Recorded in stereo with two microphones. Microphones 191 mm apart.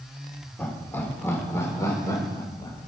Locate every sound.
0.6 s laughter: 10° left (ahead or behind), 3 m; by 2.9 s 20° left (ahead or behind), 4 m